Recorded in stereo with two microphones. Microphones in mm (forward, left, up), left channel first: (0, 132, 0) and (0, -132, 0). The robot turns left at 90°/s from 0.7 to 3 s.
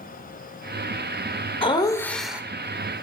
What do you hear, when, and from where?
1.6 s laughter: 20° left (ahead or behind), 0.8 m; by 2.4 s 5° right (ahead or behind), 0.8 m